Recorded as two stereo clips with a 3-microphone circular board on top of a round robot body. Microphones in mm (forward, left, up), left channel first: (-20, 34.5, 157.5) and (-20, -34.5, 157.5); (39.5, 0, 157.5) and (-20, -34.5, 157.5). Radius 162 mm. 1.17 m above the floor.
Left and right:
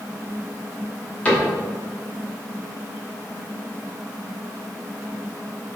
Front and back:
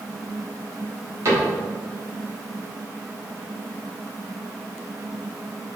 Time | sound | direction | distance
1.2 | a cupboard door | 160° left | 3 m